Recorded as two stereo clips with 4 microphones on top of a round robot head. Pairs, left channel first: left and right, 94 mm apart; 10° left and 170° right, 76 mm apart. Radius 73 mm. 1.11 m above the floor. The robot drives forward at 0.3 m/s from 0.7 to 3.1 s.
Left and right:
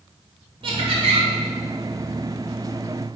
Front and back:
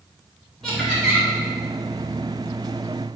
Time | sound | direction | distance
0.6 | laughter | 80° right | 1.4 m